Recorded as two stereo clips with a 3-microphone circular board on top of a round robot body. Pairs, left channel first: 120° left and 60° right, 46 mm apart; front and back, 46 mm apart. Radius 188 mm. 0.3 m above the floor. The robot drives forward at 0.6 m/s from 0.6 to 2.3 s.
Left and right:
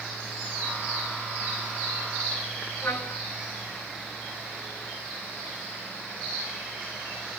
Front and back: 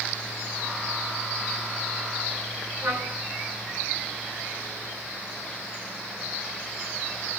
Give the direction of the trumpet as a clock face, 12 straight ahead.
7 o'clock.